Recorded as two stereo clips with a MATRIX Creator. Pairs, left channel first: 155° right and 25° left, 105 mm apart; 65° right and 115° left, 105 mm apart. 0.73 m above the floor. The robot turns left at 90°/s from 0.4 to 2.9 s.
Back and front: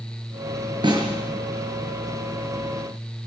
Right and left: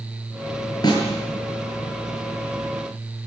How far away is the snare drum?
About 8 m.